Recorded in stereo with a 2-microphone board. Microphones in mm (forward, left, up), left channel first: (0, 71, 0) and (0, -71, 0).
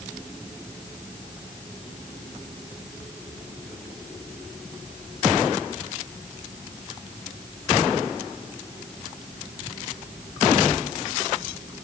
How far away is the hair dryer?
No hair dryer in this recording.